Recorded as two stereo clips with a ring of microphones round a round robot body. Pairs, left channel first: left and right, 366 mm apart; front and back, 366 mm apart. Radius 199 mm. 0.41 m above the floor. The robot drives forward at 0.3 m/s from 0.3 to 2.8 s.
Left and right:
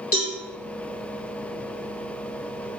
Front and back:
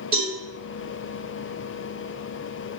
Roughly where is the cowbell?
Left.